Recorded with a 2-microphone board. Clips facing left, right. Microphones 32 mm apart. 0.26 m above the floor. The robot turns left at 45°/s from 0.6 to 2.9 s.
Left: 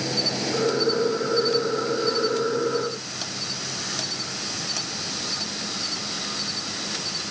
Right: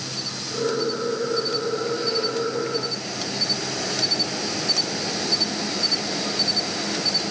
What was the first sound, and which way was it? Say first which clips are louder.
An insect: left 5 dB; 45° left.